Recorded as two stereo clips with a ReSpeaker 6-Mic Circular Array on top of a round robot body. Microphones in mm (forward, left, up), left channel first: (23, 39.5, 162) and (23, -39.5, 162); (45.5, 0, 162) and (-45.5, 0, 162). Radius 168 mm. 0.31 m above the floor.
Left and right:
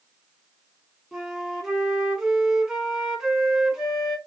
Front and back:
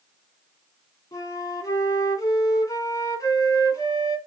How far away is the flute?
About 1.4 m.